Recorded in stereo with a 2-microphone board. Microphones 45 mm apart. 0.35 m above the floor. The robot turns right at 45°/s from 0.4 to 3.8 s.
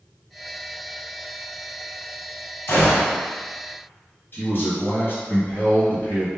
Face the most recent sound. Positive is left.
turn(degrees=40)  # may be behind; listen again after turning